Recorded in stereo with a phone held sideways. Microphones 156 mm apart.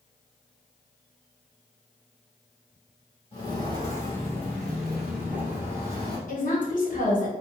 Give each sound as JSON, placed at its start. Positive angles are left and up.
{"t": 3.3, "sound": "footsteps", "side_deg": 35, "distance_m": 1.6}
{"t": 6.3, "sound": "a woman speaking", "side_deg": 60, "distance_m": 1.1}